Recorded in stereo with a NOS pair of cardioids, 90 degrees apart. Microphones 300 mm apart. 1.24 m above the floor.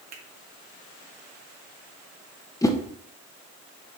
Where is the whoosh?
10° left, 1.1 m.